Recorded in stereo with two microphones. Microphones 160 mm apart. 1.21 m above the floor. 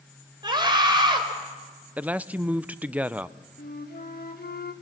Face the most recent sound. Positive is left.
turn(degrees=80)